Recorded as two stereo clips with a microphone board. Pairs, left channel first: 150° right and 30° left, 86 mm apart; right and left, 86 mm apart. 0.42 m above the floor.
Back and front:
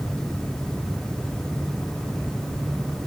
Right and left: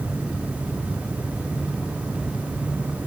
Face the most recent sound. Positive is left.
No sound to turn to.